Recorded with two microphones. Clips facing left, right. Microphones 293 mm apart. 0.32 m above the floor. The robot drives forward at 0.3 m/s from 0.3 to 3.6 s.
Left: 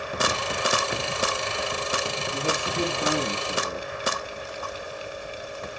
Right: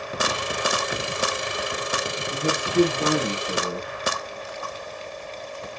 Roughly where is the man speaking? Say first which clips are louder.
Right 9 dB; right.